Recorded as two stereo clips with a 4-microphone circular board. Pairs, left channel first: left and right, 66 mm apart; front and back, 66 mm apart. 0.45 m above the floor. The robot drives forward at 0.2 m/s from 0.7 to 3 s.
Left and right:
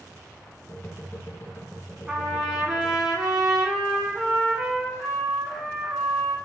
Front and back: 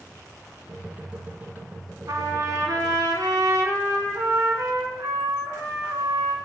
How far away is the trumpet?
About 0.6 m.